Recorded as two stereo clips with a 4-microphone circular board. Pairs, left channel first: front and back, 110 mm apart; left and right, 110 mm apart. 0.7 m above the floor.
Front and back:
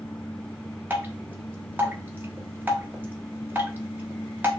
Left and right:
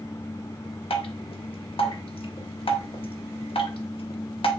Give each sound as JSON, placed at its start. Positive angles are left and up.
{"t": 0.9, "sound": "dripping", "azimuth_deg": 110, "distance_m": 0.9}